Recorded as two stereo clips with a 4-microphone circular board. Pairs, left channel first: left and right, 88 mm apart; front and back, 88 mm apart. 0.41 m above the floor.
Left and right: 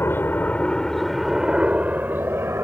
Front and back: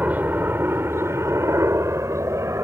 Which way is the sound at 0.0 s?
125° left.